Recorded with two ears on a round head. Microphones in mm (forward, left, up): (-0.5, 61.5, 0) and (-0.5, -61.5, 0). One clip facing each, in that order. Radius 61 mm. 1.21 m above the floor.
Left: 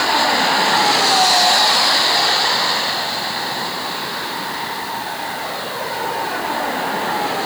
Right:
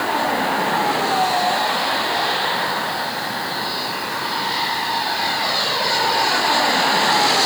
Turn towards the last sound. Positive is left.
No sound to turn to.